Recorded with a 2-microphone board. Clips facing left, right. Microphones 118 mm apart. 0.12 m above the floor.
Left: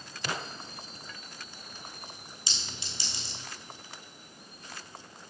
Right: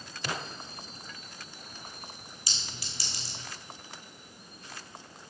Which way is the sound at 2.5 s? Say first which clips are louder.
Left 1 dB; 25° left (ahead or behind).